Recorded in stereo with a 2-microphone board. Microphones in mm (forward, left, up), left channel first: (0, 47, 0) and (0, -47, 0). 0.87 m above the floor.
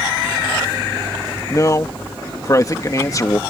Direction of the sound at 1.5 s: 35° left (ahead or behind).